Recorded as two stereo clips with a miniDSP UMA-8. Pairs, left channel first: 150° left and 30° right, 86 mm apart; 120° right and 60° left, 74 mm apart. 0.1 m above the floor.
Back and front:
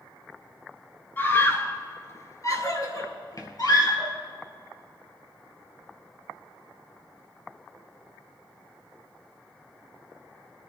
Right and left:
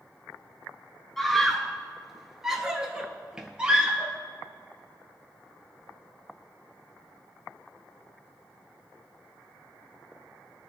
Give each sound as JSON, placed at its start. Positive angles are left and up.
{"t": 1.2, "sound": "a scream", "azimuth_deg": 160, "distance_m": 1.7}